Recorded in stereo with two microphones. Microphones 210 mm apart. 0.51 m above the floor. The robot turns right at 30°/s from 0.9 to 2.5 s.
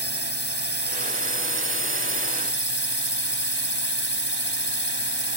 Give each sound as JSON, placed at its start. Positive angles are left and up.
{"t": 0.0, "sound": "a drone", "azimuth_deg": 65}